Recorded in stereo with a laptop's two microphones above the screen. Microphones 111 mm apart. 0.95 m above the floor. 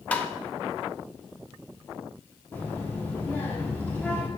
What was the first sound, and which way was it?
Tapping, 10° left (ahead or behind).